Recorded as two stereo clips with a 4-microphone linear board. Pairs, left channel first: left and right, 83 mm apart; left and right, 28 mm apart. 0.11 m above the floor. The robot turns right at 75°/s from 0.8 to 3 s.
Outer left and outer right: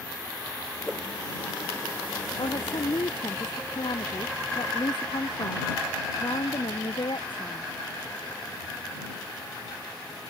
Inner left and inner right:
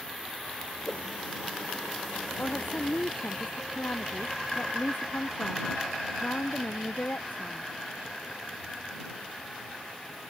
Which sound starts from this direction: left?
A woman speaking, at 2.4 s.